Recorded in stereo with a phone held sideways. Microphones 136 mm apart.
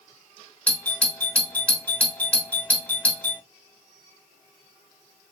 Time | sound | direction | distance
0.7 | a doorbell | 10° left (ahead or behind) | 0.5 m